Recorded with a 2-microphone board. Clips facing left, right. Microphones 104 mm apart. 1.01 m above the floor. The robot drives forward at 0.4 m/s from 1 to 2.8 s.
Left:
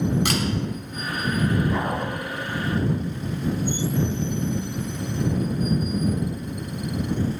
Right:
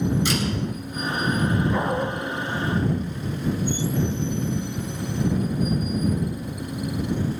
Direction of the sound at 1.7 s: Centre (ahead or behind).